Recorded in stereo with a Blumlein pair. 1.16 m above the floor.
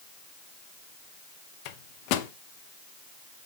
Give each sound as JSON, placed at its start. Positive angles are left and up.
{"t": 1.6, "sound": "a microwave", "azimuth_deg": 45, "distance_m": 0.8}